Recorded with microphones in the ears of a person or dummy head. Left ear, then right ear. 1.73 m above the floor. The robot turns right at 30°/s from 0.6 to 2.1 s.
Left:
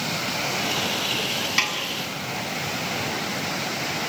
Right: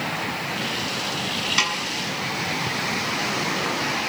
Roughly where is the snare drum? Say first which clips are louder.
Right 1 dB; centre.